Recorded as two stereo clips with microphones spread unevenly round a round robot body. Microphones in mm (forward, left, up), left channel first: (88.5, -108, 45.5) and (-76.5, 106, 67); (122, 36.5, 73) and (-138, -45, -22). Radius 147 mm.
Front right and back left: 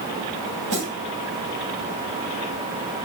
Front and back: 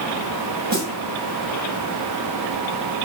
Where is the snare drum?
145° left, 5.5 m.